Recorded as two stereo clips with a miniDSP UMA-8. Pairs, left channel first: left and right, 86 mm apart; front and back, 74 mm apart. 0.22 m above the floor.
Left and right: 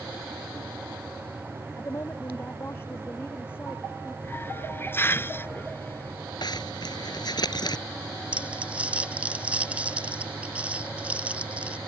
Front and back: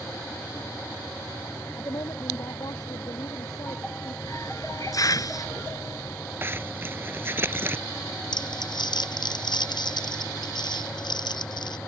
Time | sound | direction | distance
1.8 | a woman speaking | 35° left | ?
4.2 | a hiss | 30° left | ?
6.4 | a zipper | 120° left | ?
8.3 | crumpling | 15° right | ?